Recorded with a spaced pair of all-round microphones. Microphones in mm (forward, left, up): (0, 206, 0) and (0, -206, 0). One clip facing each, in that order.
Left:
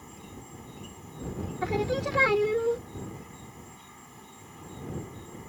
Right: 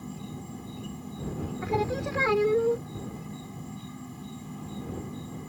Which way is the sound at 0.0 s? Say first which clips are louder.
Right 7 dB; 55° right (ahead or behind).